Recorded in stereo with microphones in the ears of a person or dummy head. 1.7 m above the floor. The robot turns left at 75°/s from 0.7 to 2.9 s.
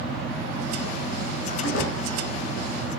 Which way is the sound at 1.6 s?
85° left.